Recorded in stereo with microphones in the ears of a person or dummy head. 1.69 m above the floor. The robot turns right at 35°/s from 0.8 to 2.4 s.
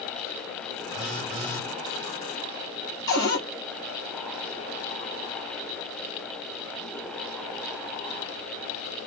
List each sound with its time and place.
0.9 s a phone buzzing: 40° right (ahead or behind), 2 m; by 1.7 s 15° right (ahead or behind), 2 m
3.1 s a cupboard door: 25° left (ahead or behind), 1.8 m